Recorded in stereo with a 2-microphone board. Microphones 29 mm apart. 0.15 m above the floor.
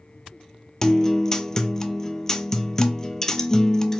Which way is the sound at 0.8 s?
20° left (ahead or behind).